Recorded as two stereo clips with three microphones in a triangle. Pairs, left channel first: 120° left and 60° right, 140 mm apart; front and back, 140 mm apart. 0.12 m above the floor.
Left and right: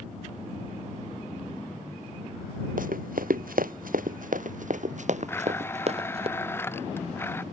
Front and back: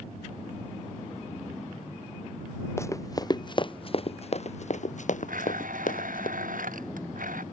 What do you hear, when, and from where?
2.8 s running footsteps: 70° right; by 6.3 s 15° right
5.3 s a blender: 165° right